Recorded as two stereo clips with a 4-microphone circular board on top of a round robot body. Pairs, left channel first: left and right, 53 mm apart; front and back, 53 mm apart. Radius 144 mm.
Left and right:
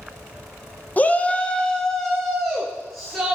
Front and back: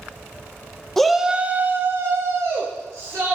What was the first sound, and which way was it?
A shout, 75° left.